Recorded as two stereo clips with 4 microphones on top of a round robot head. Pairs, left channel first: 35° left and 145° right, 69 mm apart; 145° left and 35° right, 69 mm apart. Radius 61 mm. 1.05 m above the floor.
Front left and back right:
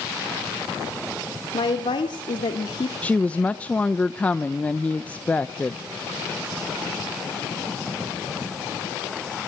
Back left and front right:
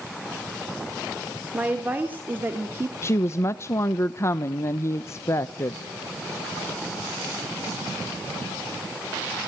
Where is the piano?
No piano in this recording.